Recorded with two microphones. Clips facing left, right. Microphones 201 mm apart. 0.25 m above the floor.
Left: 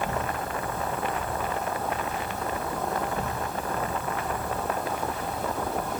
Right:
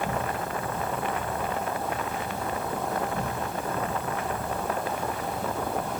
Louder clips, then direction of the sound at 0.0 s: Even; 25° right (ahead or behind).